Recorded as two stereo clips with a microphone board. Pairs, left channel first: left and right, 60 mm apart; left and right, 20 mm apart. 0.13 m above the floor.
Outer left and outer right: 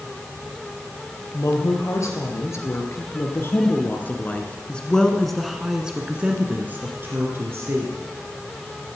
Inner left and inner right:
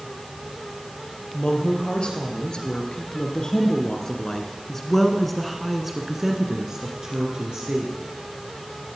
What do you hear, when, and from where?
1.3 s a woman speaking: 60° left (ahead or behind), 3 m; by 8.0 s 50° right (ahead or behind), 2.5 m